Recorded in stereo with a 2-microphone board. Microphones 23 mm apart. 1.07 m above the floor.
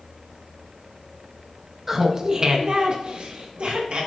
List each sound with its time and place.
1.9 s laughter: 15° right (ahead or behind), 1.1 m; by 4.1 s 65° right (ahead or behind), 1.7 m